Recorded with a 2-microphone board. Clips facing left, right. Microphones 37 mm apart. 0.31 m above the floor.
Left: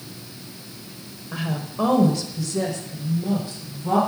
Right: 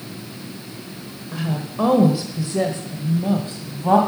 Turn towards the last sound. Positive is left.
turn(degrees=-55)  # may be behind; listen again after turning